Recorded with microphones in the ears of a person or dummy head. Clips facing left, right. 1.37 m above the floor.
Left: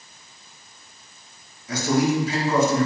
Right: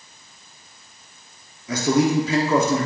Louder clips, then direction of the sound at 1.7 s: Right 2 dB; 70° right (ahead or behind).